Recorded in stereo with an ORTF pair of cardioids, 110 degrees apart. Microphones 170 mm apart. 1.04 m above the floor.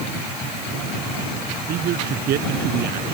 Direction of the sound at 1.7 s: 70° right.